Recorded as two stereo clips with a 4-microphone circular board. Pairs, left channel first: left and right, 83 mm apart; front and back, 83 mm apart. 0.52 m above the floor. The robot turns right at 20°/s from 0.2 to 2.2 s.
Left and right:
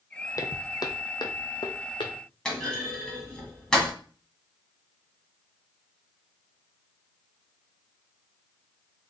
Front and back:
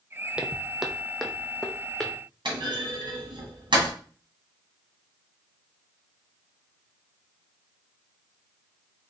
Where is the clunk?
170° left, 1.8 m.